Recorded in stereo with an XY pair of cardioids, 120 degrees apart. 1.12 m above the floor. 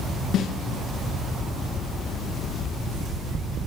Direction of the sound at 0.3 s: 70° left.